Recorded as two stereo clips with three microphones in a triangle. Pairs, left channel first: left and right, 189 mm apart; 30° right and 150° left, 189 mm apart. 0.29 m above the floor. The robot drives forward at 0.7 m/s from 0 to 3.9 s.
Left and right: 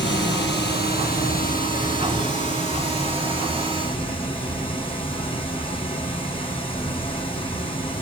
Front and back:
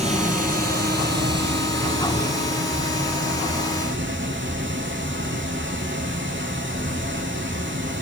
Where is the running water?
95° left, 1.5 m; by 8.0 s 150° left, 3.5 m.